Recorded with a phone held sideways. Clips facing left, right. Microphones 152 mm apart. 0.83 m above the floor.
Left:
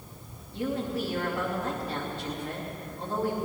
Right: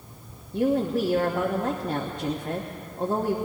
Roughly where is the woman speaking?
Right.